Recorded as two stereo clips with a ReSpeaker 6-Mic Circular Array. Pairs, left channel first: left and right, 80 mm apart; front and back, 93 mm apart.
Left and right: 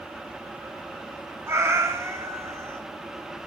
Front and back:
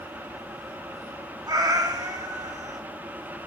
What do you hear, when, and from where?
1.5 s a cat meowing: 140° right, 0.6 m